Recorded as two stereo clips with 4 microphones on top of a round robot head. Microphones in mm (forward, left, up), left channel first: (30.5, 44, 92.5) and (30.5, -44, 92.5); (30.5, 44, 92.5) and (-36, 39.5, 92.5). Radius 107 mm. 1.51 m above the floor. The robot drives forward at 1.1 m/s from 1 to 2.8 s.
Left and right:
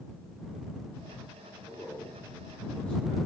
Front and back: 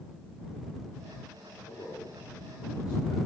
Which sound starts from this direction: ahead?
A man speaking, at 1.7 s.